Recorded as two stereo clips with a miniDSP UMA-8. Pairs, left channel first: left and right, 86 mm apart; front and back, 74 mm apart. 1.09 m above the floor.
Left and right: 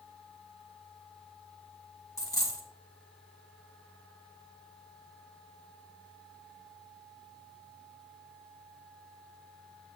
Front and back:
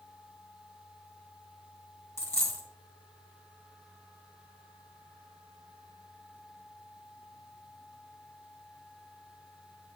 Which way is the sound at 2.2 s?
45° left.